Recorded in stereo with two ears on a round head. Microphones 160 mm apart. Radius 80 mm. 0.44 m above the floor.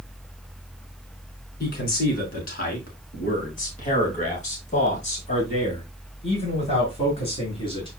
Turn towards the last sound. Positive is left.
turn(degrees=30)  # may be behind; listen again after turning